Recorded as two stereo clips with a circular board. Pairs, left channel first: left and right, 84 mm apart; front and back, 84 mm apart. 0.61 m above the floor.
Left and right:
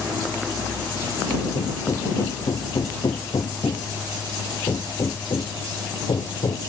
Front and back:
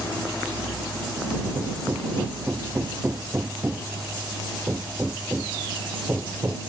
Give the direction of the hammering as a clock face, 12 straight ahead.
8 o'clock.